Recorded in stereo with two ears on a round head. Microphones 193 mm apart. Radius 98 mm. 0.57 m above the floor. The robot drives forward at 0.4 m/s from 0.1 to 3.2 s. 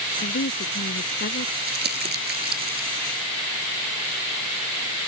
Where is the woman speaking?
45° left (ahead or behind).